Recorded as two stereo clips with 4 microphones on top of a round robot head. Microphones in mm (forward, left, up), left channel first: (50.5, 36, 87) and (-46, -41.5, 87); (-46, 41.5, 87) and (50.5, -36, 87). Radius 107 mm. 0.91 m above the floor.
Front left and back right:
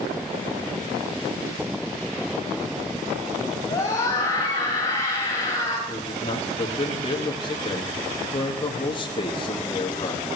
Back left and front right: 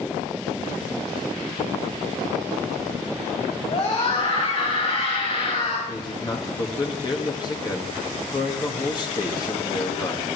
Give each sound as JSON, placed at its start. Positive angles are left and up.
{"t": 3.7, "sound": "a scream", "azimuth_deg": 100, "distance_m": 4.5}
{"t": 5.9, "sound": "a man speaking", "azimuth_deg": 90, "distance_m": 1.6}